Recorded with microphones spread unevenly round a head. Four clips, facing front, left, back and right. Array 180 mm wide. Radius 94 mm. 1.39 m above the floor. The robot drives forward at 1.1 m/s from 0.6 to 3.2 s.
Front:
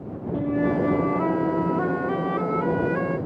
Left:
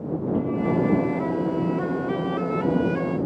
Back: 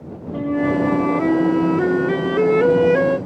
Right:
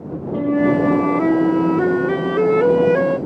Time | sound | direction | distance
0.3 | a flute | 110° right | ?